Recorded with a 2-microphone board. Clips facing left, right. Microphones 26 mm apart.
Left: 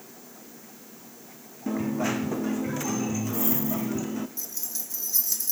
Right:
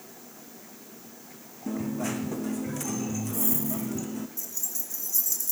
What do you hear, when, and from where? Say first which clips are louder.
1.7 s a dropped coin: left 3 dB; 20° left (ahead or behind), 1.0 m
4.4 s keys jangling: even; 60° left (ahead or behind), 3.5 m